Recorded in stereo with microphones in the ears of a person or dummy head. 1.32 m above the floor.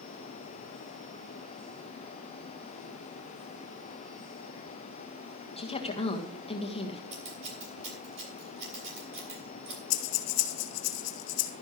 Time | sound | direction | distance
5.6 | a woman speaking | 30° left (ahead or behind) | 1.6 m
7.1 | scissors | 40° right (ahead or behind) | 6.5 m
9.9 | breathing | 80° left | 1.8 m